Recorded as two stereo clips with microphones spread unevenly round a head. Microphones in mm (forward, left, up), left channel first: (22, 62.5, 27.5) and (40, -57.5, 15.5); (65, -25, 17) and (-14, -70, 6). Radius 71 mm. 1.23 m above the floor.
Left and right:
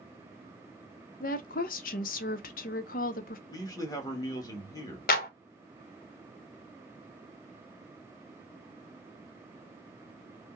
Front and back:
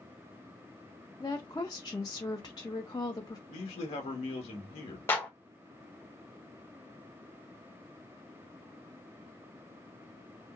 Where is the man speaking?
35° left, 1.4 m.